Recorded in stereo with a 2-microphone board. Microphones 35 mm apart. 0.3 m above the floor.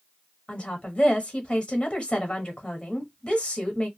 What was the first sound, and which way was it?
A woman speaking, 30° left (ahead or behind).